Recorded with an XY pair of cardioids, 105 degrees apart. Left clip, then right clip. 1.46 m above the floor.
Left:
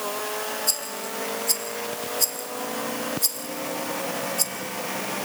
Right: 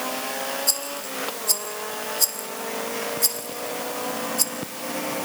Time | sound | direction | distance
0.7 | a rattle | 10° right | 1.7 m